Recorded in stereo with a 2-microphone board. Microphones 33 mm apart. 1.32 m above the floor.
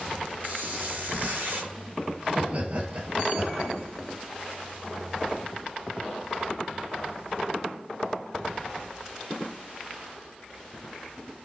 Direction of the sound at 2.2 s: 40° right (ahead or behind).